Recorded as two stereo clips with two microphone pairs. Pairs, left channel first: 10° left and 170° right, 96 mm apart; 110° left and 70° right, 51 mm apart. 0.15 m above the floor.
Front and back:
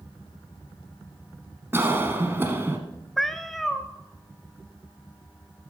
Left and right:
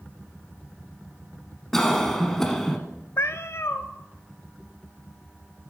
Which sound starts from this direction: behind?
A cough, at 1.7 s.